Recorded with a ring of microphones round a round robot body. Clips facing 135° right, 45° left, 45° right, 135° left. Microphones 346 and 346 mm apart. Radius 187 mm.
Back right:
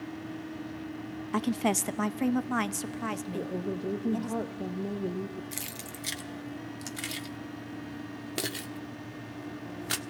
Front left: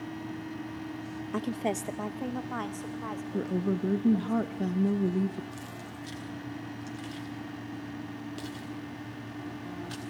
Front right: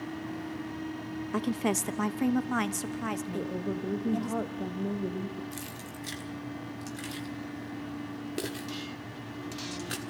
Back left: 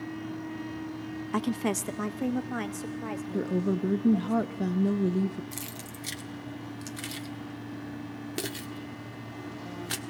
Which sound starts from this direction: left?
A woman speaking, at 3.3 s.